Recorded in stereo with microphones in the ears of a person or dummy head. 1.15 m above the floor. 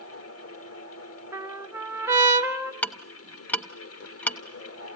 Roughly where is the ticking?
Centre.